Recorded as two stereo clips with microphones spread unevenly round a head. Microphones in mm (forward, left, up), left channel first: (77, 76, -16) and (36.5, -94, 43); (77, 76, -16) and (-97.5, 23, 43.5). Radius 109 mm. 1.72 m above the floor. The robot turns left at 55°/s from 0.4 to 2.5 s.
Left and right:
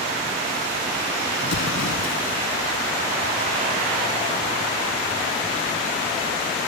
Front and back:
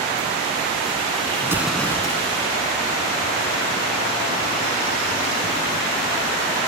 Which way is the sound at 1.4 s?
125° left.